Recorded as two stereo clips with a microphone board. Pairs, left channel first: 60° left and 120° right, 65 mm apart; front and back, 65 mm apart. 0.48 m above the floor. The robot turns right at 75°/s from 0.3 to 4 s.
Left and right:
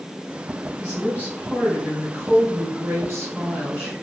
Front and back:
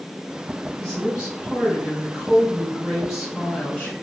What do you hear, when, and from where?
0.8 s a woman speaking: 75° left, 1.6 m; by 3.9 s 50° right, 1.6 m